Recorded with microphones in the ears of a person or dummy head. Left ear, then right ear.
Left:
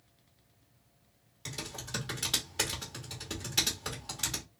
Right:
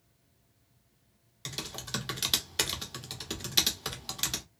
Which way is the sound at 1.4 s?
30° right (ahead or behind).